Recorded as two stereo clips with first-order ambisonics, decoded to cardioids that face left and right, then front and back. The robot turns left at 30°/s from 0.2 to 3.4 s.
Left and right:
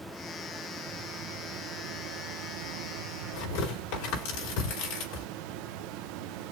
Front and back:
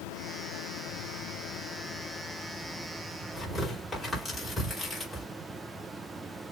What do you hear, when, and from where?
0.0 s running water: 5° right, 0.8 m; by 6.5 s 100° right, 0.8 m
3.3 s tearing paper: 85° left, 4.5 m